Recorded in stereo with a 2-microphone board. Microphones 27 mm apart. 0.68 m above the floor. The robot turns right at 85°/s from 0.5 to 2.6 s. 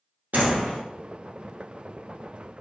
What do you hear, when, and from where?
0.3 s a door slam: 80° right, 1.0 m; by 0.8 s 65° right (ahead or behind), 1.0 m